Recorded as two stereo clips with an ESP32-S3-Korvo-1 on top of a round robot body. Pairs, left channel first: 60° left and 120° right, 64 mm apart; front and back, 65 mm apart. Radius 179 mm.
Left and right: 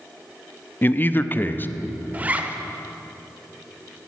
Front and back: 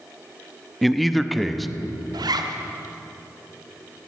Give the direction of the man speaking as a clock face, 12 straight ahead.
9 o'clock.